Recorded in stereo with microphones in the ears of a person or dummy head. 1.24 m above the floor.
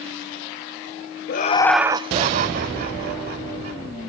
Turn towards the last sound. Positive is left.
turn(degrees=-60)  # may be behind; listen again after turning